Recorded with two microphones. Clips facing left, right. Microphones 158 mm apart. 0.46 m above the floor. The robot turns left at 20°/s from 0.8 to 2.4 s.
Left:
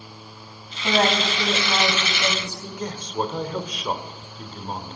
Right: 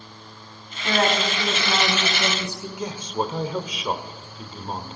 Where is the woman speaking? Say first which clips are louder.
Left 1 dB; 15° left, 3 m; by 2.7 s 15° right, 3 m.